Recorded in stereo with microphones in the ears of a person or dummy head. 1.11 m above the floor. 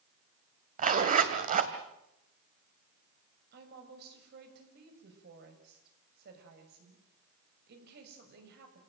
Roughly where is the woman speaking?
Right.